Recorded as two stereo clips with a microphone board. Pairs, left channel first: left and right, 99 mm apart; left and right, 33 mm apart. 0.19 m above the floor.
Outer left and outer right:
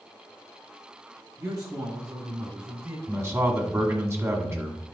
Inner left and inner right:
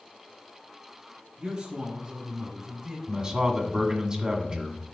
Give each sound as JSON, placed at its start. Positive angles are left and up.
{"t": 1.4, "sound": "a man speaking", "side_deg": -35, "distance_m": 1.6}
{"t": 3.1, "sound": "a man speaking", "side_deg": -25, "distance_m": 1.6}